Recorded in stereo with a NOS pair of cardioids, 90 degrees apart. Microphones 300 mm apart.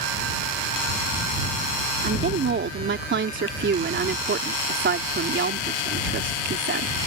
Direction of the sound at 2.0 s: 35° right.